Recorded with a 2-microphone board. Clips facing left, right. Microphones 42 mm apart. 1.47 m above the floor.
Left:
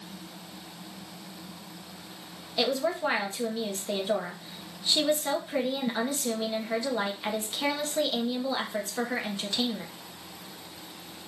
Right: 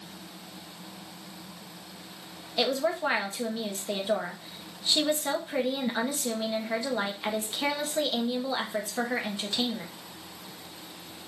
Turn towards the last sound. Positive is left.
turn(degrees=-5)  # may be behind; listen again after turning